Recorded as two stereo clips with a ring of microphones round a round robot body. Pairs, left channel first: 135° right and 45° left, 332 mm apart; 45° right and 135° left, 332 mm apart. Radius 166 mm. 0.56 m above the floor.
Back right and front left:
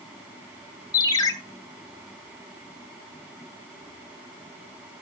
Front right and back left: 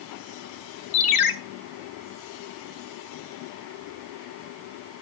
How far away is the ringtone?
About 1.2 m.